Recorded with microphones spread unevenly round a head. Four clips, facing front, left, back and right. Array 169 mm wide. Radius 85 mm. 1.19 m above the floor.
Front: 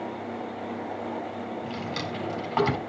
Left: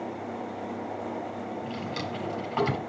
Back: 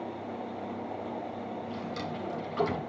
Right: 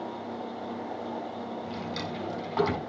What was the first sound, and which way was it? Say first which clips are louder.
A drawer: left 1 dB, front 3 dB; 10° left.